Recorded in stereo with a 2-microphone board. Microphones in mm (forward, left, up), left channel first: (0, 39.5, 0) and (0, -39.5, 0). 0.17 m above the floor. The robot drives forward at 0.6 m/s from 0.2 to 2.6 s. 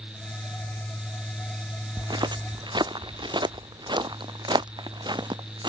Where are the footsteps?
70° right (ahead or behind); by 5.7 s 75° right (ahead or behind).